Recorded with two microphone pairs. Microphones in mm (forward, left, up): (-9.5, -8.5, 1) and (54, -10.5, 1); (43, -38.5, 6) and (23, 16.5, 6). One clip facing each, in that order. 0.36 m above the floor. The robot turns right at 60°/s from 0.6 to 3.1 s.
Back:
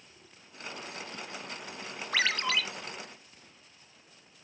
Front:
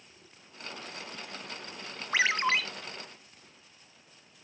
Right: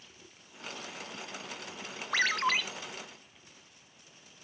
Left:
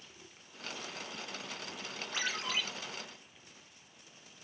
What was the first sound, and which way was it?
A ringtone, 75° right.